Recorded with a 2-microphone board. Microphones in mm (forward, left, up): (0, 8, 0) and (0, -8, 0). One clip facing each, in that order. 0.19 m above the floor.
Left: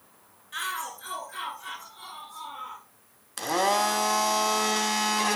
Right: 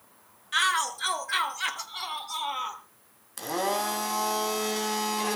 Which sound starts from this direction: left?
A blender, at 3.4 s.